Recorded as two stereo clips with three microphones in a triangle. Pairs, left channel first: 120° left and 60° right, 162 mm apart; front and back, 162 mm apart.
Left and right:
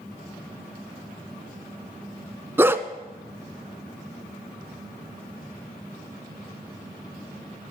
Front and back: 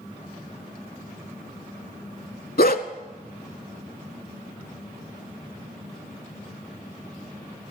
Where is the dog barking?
15° left, 0.6 m.